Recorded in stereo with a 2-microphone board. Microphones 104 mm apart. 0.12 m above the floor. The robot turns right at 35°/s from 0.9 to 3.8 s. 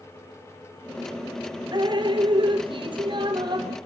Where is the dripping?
125° right, 1.7 m; by 3.8 s 50° right, 1.7 m.